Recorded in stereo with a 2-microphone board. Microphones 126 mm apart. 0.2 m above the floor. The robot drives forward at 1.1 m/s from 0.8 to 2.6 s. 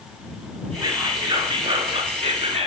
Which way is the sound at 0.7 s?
25° right (ahead or behind).